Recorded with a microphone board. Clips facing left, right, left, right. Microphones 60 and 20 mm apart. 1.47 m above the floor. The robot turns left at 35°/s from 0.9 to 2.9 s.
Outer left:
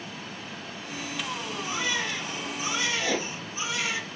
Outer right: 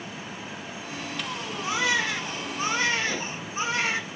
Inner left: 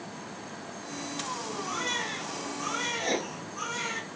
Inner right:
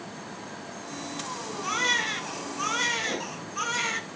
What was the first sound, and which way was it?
A baby crying, 95° right.